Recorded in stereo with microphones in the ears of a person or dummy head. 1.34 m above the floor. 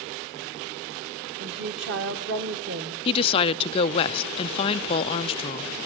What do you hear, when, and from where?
1.4 s a woman speaking: 60° right (ahead or behind), 1.4 m
3.0 s a woman speaking: 25° left (ahead or behind), 0.5 m